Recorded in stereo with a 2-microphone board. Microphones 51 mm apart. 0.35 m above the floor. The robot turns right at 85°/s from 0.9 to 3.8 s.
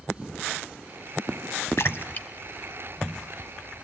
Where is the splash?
65° left (ahead or behind), 0.9 m; by 2.3 s 30° left (ahead or behind), 0.9 m.